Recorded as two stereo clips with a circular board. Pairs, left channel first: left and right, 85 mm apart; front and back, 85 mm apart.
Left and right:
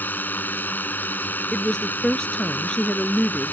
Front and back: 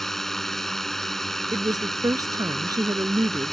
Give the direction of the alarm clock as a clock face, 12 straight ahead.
No alarm clock in this recording.